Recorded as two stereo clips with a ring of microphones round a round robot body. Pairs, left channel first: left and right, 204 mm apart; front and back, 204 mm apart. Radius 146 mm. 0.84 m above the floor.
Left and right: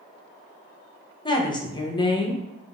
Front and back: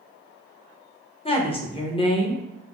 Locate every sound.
1.2 s a woman speaking: 40° left, 0.6 m